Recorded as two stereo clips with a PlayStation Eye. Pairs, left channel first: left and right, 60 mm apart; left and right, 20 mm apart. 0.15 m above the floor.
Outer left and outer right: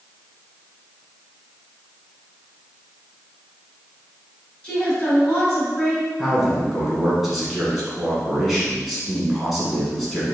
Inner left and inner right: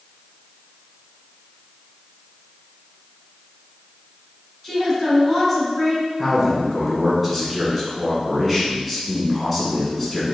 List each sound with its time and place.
4.6 s a woman speaking: 15° left (ahead or behind), 1.6 m
6.2 s a man speaking: 5° right (ahead or behind), 1.1 m